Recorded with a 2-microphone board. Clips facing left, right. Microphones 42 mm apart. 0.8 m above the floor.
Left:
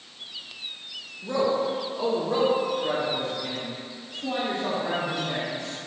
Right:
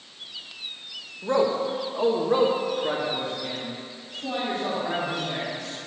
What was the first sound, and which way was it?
A man speaking, 65° right (ahead or behind).